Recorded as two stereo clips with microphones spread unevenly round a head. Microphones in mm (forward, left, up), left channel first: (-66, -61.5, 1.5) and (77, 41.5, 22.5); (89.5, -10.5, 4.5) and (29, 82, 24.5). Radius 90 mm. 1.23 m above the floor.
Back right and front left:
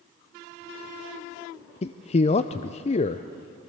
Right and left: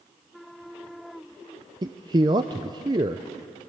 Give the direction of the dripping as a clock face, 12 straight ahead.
I don't hear dripping.